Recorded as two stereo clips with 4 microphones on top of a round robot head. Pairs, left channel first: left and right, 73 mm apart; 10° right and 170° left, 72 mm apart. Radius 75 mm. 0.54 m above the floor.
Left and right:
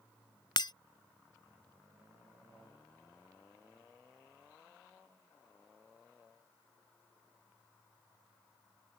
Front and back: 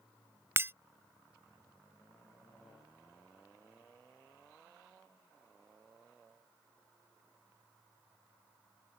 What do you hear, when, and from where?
0.6 s breaking glass: 115° left